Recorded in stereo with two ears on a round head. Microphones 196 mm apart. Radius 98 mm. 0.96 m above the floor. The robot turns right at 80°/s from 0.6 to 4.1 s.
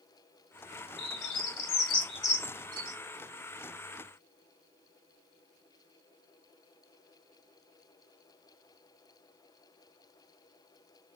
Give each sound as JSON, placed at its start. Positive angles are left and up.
{"t": 1.0, "sound": "a bird", "side_deg": 60, "distance_m": 3.0}